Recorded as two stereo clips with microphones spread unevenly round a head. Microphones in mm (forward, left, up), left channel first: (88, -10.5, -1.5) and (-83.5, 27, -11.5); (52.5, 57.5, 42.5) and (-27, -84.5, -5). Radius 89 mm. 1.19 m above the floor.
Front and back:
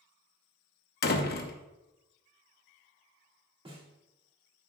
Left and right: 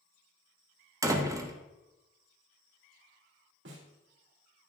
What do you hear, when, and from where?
1.0 s a door slam: 40° right, 0.9 m
3.6 s a snare drum: 130° right, 2 m